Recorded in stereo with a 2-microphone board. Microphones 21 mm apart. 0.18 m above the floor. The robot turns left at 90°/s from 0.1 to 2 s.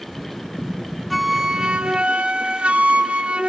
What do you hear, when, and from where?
1.1 s a flute: straight ahead, 0.7 m; by 3.5 s 80° right, 0.7 m